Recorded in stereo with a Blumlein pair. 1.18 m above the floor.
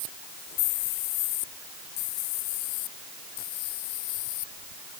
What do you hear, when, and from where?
Only background noise.